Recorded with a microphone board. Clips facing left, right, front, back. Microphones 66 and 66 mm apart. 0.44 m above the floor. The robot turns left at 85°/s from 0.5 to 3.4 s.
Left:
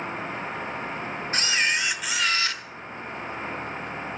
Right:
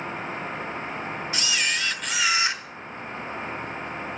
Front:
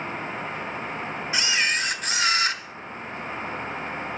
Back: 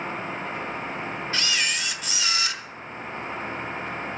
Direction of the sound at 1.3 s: 70° left.